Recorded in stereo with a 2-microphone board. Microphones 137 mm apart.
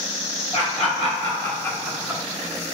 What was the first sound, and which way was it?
Laughter, 55° left (ahead or behind).